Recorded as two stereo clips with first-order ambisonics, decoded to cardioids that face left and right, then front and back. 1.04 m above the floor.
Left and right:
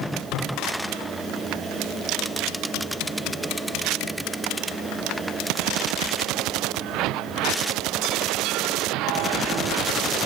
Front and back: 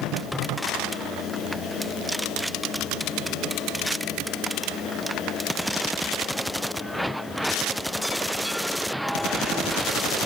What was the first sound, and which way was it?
Only background noise.